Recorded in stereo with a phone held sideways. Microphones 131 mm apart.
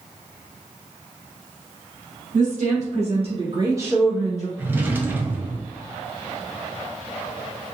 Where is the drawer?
15° right (ahead or behind), 0.6 m.